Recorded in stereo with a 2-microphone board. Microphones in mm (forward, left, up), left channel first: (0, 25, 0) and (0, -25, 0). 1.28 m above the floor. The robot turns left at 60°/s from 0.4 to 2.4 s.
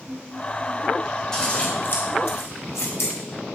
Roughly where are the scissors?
Centre.